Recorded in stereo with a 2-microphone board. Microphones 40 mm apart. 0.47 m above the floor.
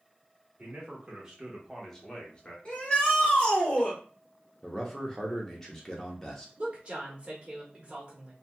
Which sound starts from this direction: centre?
A man speaking, at 4.6 s.